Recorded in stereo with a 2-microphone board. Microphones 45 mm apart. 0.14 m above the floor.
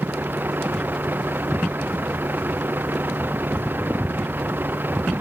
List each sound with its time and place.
0.0 s a vehicle: 45° right (ahead or behind)